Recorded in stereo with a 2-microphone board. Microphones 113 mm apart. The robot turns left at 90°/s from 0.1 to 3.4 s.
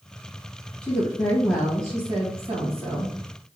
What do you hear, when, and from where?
0.8 s a woman speaking: 60° left, 2.5 m; by 3.1 s 150° right, 2.5 m